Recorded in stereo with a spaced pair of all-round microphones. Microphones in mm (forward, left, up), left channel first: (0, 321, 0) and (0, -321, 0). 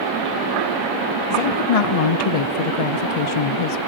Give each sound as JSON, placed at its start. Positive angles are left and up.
{"t": 1.3, "sound": "a woman speaking", "side_deg": 60, "distance_m": 0.6}